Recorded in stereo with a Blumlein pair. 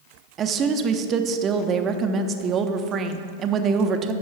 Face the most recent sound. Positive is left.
turn(degrees=-25)